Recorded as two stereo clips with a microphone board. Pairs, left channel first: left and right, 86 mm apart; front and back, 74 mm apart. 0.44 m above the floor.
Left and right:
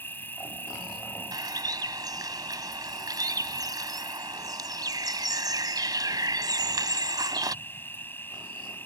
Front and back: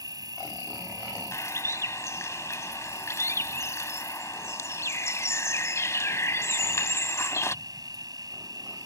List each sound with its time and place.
0.0 s an insect: 155° left
1.3 s a bird: 50° right